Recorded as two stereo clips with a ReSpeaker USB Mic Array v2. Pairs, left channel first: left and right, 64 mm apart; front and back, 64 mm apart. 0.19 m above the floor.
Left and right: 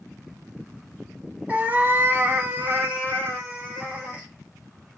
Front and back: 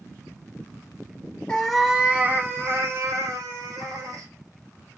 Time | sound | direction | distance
1.5 | a cat meowing | 55° right | 0.6 m